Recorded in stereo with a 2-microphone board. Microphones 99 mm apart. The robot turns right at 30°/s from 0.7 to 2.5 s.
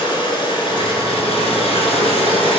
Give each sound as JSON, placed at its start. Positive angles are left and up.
{"t": 0.0, "sound": "running water", "azimuth_deg": 60, "distance_m": 2.0}